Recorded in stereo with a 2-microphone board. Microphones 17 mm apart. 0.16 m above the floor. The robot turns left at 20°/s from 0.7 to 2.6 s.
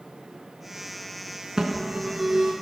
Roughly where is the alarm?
Right.